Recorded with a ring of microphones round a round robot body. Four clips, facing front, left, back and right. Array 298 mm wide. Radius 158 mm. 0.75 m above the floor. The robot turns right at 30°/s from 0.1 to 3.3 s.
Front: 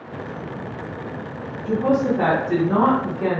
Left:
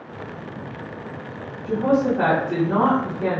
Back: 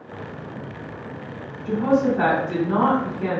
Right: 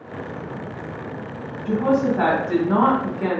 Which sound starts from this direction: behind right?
A woman speaking, at 1.6 s.